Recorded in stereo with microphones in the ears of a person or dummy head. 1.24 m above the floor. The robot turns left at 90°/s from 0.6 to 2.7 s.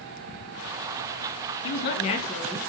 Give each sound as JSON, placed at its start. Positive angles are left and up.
{"t": 1.6, "sound": "a man speaking", "azimuth_deg": 80, "distance_m": 2.0}